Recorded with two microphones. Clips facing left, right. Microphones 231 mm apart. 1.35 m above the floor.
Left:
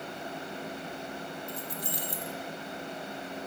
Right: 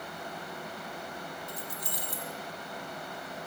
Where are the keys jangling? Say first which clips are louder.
Left 3 dB; 60° left (ahead or behind), 1.1 m.